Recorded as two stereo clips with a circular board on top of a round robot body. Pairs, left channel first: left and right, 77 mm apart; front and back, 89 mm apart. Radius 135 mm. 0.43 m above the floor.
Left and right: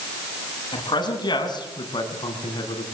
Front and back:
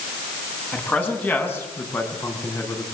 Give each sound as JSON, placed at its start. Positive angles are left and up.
{"t": 0.7, "sound": "a man speaking", "azimuth_deg": 70, "distance_m": 5.5}